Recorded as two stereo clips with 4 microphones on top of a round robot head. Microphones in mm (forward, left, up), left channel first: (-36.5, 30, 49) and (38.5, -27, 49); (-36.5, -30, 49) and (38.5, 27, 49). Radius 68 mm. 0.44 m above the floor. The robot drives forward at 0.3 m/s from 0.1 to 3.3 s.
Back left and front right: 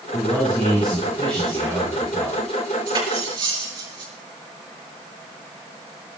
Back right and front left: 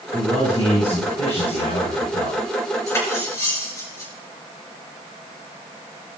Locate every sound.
0.1 s a man speaking: 130° right, 6.5 m; by 2.4 s 135° right, 7 m
2.9 s cutlery clinking: 80° right, 4.5 m; by 4.1 s 85° right, 4.5 m